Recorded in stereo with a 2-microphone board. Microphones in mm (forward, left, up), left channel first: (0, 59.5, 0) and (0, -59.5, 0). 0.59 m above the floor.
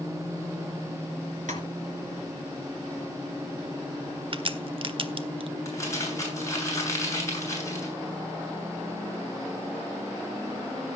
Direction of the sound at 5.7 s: 25° left (ahead or behind).